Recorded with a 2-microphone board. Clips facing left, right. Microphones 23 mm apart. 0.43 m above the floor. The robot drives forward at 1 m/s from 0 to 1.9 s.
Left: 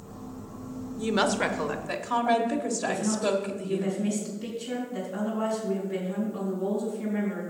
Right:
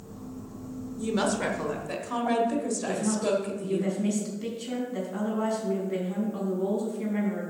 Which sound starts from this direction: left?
A woman speaking, at 1.0 s.